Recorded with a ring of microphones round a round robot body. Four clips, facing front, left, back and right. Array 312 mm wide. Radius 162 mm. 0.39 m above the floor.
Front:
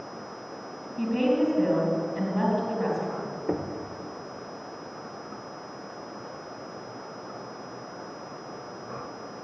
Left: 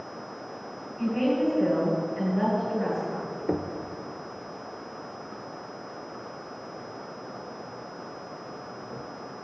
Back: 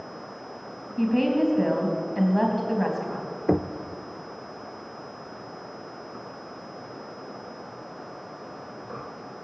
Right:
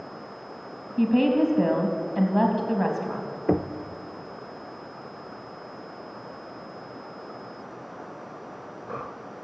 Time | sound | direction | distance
1.0 | a woman speaking | 115° right | 3.5 m
3.5 | knocking | 140° right | 0.8 m